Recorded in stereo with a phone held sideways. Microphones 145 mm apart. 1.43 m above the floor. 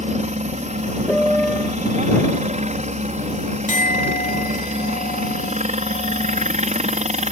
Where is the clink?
55° left (ahead or behind).